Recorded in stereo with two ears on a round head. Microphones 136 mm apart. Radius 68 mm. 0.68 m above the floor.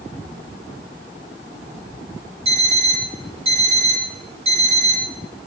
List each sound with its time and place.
2.5 s an alarm clock: 40° right (ahead or behind), 9 m